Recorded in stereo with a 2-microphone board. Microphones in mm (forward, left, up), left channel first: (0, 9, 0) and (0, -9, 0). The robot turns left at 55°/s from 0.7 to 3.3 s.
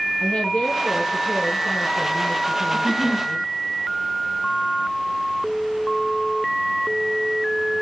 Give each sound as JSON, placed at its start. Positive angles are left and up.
{"t": 0.2, "sound": "a woman speaking", "azimuth_deg": 60, "distance_m": 9.0}
{"t": 2.7, "sound": "a giggle", "side_deg": 30, "distance_m": 1.2}